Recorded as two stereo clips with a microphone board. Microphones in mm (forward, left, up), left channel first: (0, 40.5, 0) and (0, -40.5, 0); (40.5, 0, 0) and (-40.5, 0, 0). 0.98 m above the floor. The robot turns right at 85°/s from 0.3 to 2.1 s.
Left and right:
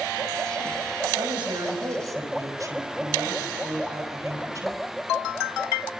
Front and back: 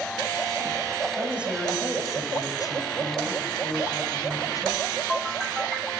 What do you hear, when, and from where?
1.2 s a woman speaking: 125° right, 5.5 m; by 4.8 s 45° right, 5.5 m